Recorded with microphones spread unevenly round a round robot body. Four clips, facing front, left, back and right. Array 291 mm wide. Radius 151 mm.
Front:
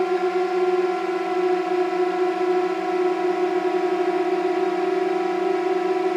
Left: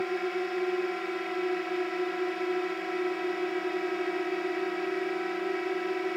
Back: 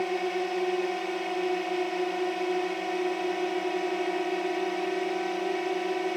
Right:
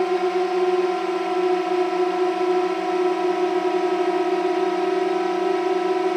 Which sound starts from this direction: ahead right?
A drone, at 0.0 s.